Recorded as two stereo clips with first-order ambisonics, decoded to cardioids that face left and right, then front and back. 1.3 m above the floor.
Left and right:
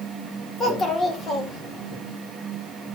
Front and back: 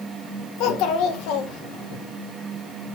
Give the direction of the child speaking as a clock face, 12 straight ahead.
11 o'clock.